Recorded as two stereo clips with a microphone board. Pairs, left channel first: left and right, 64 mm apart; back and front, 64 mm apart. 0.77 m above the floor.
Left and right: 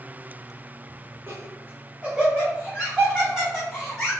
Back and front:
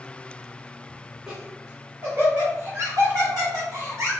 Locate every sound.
1.3 s laughter: 70° right, 0.9 m; by 4.1 s 15° left, 1.7 m